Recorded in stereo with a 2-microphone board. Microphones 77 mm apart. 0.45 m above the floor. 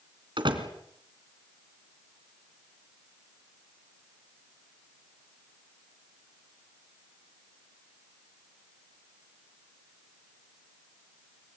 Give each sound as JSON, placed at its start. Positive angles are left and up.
{"t": 0.4, "sound": "a door slam", "side_deg": -80, "distance_m": 3.0}